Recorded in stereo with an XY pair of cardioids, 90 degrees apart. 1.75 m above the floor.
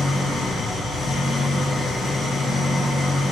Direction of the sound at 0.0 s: 70° left.